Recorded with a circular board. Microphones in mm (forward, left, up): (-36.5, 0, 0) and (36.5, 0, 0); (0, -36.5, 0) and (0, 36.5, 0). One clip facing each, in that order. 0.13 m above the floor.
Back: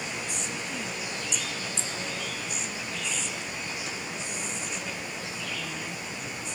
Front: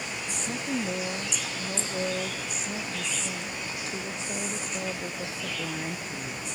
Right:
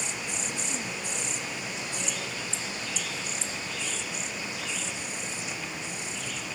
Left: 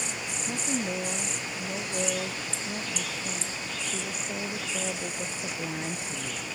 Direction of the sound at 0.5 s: 45° left.